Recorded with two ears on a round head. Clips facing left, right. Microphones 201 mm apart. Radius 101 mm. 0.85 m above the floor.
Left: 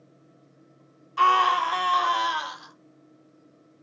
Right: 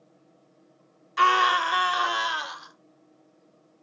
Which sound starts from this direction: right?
A scream, at 1.2 s.